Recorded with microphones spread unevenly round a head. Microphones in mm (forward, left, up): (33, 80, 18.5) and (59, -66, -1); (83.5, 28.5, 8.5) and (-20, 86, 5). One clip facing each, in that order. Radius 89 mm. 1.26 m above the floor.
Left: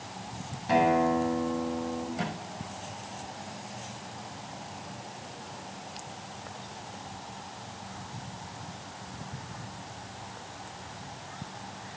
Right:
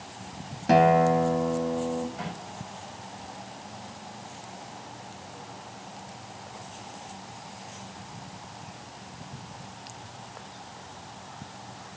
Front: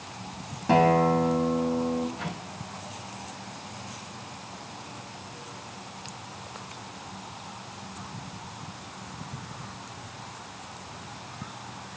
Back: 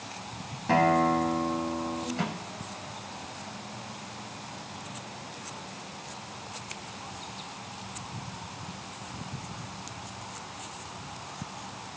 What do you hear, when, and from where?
0.7 s a guitar: 90° right, 1.4 m
2.2 s a microwave: 165° left, 6.5 m